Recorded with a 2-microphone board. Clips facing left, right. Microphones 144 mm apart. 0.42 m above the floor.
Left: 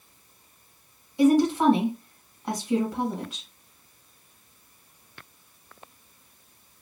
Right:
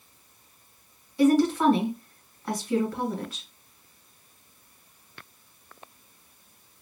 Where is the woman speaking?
20° left (ahead or behind), 1.9 m.